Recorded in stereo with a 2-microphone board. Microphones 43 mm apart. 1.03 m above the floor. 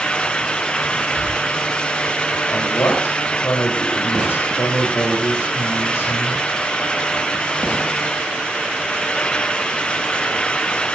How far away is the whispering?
About 9.5 m.